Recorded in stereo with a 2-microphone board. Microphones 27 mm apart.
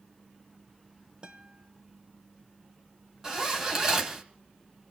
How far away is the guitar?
About 1.3 m.